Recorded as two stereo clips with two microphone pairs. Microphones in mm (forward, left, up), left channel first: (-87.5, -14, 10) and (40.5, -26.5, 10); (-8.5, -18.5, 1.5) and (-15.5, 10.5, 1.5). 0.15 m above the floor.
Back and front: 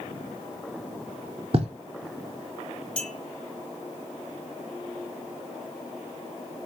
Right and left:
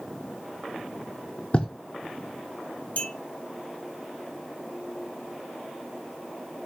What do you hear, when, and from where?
1.5 s writing: 30° right, 0.6 m
3.0 s a clink: 105° right, 1.4 m